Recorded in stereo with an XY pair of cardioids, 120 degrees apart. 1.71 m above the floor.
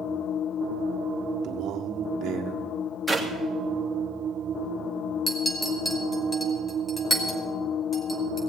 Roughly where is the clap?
Ahead.